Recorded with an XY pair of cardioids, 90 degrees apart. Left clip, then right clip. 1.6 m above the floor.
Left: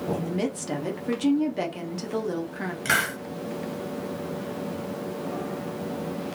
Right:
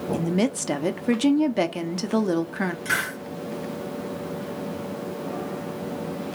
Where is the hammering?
I don't hear hammering.